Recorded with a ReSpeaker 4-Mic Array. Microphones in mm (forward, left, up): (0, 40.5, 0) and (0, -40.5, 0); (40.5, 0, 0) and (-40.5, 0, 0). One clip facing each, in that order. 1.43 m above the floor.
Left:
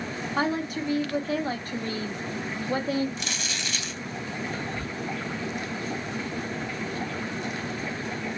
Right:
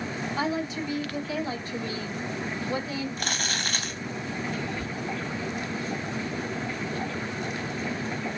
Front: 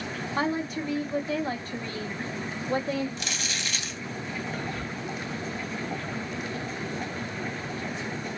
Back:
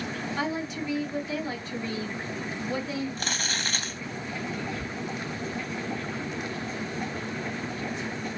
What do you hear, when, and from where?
0.4 s a woman speaking: 45° left, 1.3 m
3.2 s crumpling: 135° right, 0.5 m
4.5 s whispering: 40° left, 0.6 m